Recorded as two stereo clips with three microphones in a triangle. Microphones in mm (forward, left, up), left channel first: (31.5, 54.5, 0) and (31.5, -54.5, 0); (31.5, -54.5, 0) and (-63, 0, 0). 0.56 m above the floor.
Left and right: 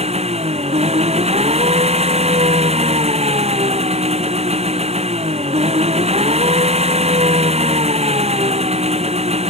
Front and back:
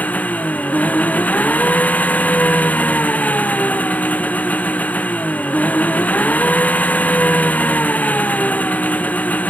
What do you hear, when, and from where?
0.0 s an engine running: 105° right